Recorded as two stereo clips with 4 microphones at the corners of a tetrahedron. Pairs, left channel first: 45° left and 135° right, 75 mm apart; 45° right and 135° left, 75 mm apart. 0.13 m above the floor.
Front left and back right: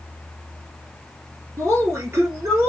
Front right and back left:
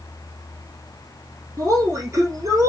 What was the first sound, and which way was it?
A woman speaking, 175° left.